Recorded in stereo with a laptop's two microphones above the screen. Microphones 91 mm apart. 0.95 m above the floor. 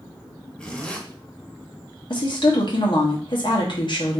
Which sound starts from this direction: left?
A woman speaking, at 2.1 s.